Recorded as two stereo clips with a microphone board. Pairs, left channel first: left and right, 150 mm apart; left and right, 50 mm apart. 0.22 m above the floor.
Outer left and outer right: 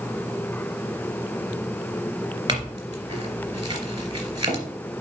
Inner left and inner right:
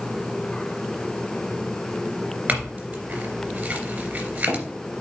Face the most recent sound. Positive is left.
turn(degrees=-30)  # may be behind; listen again after turning